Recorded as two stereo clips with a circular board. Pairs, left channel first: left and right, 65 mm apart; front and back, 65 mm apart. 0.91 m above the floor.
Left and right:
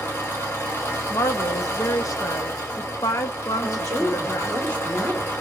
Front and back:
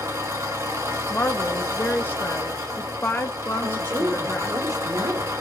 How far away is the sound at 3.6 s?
About 2.5 m.